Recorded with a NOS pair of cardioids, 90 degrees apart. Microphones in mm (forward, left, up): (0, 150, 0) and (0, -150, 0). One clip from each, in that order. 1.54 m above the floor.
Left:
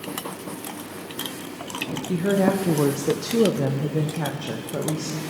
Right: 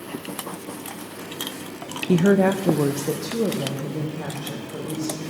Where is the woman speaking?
40° right, 0.6 m; by 5.2 s 45° left, 2 m.